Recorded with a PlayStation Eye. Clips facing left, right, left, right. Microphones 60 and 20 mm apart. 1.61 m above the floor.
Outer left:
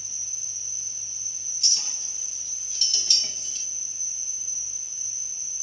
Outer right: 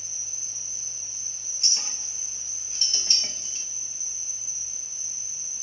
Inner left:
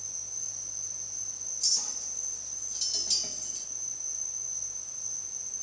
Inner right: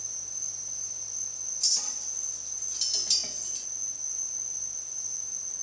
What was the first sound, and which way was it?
An insect, 70° right (ahead or behind).